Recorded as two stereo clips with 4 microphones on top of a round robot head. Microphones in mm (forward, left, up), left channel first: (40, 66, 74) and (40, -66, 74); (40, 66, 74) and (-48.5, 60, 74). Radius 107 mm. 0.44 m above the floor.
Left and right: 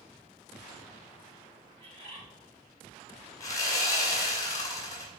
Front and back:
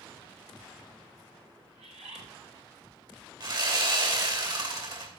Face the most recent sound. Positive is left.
turn(degrees=155)